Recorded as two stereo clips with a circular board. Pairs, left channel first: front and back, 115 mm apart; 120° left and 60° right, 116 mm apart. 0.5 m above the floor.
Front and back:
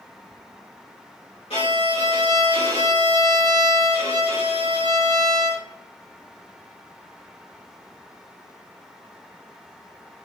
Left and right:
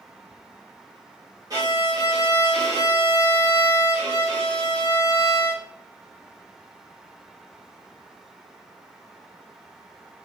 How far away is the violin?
About 2 m.